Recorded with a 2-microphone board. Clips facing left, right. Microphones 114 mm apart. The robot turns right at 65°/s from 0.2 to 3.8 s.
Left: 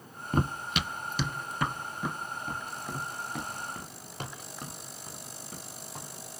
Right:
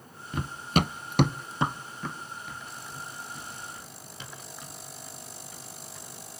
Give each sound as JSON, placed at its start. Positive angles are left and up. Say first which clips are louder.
{"t": 0.3, "sound": "running footsteps", "louder": "right 2 dB", "side_deg": 45, "distance_m": 0.6}